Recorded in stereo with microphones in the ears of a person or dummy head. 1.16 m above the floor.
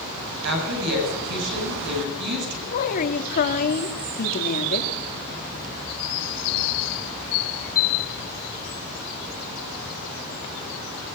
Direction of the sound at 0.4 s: 60° right (ahead or behind).